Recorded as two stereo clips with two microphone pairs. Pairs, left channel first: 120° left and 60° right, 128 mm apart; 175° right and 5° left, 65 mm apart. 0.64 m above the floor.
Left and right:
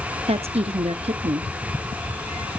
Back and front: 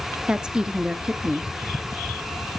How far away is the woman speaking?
About 0.9 m.